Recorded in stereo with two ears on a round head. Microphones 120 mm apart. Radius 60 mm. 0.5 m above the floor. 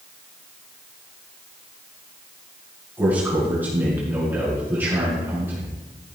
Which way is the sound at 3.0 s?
20° right (ahead or behind).